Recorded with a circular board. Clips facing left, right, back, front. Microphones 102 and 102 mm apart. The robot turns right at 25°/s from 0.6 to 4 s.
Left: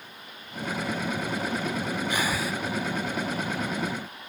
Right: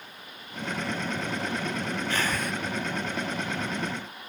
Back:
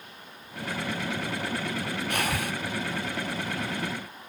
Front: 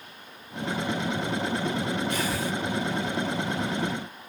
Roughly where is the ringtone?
No ringtone in this recording.